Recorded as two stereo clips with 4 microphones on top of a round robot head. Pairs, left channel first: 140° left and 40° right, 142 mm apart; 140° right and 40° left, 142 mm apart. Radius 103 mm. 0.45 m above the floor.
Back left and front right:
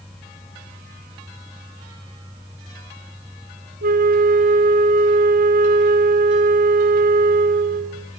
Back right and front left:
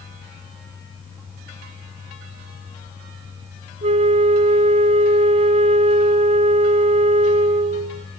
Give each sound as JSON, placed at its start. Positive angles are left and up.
{"t": 3.8, "sound": "a flute", "azimuth_deg": -10, "distance_m": 1.2}